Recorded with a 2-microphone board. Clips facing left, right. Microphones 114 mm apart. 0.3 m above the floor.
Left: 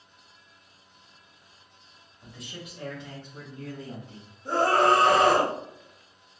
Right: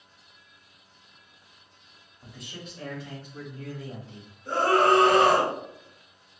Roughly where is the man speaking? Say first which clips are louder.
Even; centre.